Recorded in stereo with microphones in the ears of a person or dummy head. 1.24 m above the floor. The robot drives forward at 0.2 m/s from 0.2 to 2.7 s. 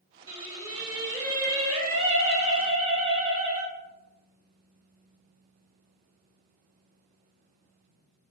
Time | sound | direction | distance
0.3 | singing | 30° right (ahead or behind) | 1.4 m